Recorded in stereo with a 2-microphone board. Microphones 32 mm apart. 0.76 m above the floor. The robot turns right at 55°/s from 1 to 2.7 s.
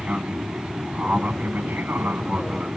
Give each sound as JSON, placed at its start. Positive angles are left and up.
{"t": 0.0, "sound": "an aircraft", "azimuth_deg": -130}